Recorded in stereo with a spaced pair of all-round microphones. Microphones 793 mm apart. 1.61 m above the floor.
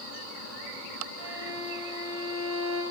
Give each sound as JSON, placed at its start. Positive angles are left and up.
{"t": 1.1, "sound": "a violin", "side_deg": -80, "distance_m": 7.5}